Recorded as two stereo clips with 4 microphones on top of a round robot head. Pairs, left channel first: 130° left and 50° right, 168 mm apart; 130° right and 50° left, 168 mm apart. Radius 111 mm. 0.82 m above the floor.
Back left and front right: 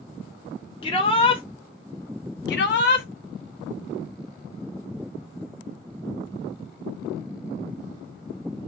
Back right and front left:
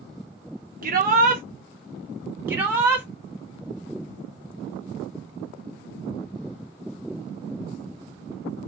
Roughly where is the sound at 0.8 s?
Left.